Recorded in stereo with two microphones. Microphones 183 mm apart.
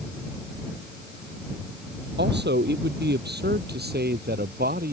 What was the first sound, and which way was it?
A man speaking, 70° right (ahead or behind).